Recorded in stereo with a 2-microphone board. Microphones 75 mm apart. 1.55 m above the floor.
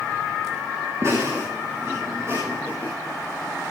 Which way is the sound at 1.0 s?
45° right (ahead or behind).